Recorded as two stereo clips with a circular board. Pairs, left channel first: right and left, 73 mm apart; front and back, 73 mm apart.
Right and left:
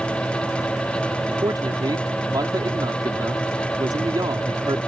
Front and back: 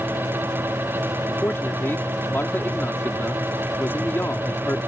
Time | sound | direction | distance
1.4 | a man speaking | 60° left | ?